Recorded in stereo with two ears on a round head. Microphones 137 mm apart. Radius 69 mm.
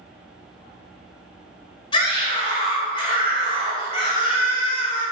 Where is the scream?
35° left (ahead or behind), 3 m.